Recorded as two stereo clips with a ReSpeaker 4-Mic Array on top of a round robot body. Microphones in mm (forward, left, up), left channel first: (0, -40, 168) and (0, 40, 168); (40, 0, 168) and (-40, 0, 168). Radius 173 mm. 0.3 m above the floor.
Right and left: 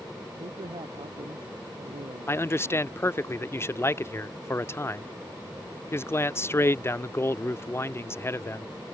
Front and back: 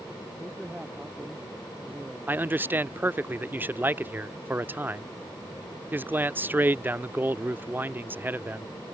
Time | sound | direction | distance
0.4 | a man speaking | 100° left | ?
2.3 | a man speaking | 130° right | ?